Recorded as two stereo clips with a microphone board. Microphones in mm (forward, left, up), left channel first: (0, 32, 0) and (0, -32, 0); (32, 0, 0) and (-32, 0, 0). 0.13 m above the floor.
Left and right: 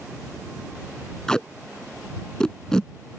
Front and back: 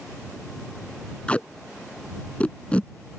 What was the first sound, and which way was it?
Tape being pulled, 30° left.